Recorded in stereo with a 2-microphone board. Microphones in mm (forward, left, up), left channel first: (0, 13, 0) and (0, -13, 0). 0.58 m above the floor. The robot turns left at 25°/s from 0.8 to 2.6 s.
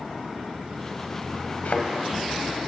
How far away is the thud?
About 1.0 m.